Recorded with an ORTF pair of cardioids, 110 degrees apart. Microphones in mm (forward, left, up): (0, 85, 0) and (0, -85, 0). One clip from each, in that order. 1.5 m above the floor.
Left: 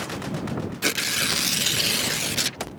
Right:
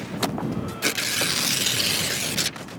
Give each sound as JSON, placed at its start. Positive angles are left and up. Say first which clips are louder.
{"t": 0.8, "sound": "tearing paper", "louder": "even", "azimuth_deg": 5}